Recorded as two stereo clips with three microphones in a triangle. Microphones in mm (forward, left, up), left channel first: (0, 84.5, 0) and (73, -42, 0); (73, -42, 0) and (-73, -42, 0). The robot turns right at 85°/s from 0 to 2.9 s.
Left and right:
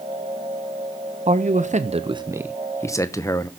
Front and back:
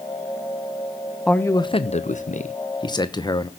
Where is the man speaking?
85° right, 0.9 m; by 3.5 s 55° left, 0.9 m.